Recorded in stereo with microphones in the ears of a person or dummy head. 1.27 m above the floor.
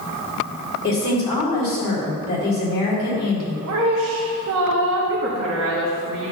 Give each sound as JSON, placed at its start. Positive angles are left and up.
{"t": 0.8, "sound": "a woman speaking", "side_deg": 25, "distance_m": 3.0}
{"t": 3.7, "sound": "a woman speaking", "side_deg": -65, "distance_m": 1.3}